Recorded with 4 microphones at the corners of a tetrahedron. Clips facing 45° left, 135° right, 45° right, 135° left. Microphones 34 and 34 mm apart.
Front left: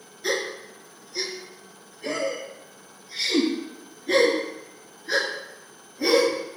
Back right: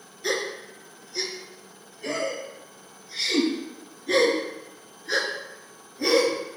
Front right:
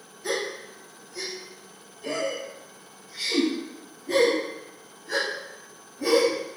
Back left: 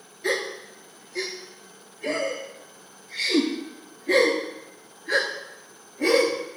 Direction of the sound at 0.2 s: 130° left.